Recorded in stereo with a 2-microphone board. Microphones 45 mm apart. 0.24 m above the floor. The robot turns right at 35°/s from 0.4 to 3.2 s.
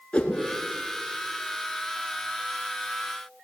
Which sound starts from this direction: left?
A whoosh, at 0.1 s.